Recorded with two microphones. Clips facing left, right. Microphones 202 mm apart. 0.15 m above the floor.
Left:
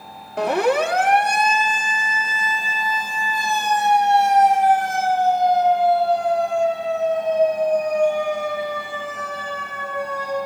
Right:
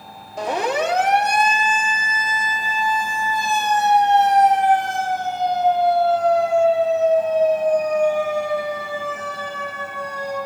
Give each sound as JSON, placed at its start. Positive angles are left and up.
{"t": 0.4, "sound": "a siren", "side_deg": 65, "distance_m": 3.5}